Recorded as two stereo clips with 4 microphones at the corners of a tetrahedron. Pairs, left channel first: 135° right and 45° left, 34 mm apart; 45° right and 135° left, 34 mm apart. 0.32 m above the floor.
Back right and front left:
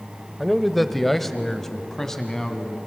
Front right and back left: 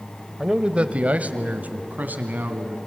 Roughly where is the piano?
No piano in this recording.